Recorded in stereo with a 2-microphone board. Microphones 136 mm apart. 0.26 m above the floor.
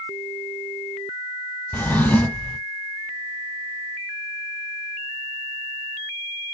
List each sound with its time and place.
1.7 s a drawer: 10° left (ahead or behind), 0.5 m